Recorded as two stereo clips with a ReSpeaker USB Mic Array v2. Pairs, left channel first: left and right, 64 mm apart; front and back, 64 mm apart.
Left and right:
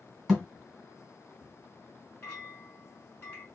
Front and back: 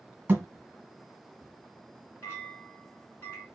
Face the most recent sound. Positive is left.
turn(degrees=45)